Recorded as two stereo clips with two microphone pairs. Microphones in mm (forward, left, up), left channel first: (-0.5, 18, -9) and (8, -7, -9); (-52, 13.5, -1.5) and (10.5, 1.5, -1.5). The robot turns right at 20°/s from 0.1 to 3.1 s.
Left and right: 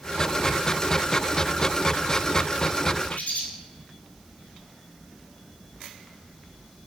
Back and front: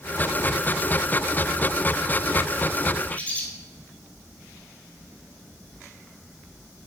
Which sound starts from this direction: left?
A bird, at 3.1 s.